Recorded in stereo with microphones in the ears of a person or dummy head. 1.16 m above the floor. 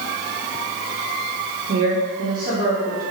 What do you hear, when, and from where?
1.7 s a woman speaking: 50° right (ahead or behind), 2.5 m